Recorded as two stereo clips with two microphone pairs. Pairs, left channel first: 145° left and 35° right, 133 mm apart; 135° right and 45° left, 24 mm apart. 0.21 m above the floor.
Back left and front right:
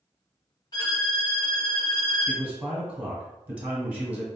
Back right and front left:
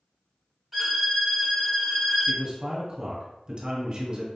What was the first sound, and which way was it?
A violin, 130° left.